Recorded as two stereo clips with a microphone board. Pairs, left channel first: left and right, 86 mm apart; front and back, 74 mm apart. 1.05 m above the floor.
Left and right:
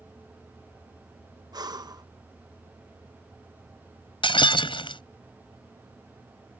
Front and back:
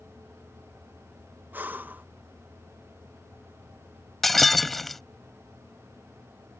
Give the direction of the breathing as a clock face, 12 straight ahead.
4 o'clock.